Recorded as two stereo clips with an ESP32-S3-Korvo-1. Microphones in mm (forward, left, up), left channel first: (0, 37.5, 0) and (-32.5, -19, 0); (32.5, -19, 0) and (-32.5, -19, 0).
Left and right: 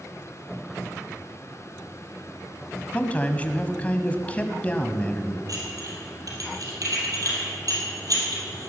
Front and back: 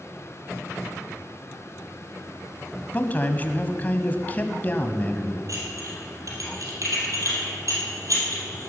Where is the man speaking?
20° left, 1.1 m.